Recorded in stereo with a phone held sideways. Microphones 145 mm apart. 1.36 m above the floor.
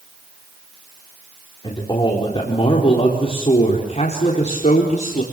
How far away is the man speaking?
About 4 m.